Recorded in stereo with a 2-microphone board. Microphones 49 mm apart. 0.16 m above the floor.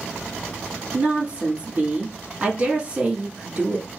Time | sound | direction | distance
0.9 | a woman speaking | 30° right (ahead or behind) | 1.8 m